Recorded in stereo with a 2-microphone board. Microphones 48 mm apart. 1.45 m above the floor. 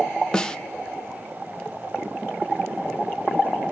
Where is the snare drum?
15° left (ahead or behind), 0.7 m.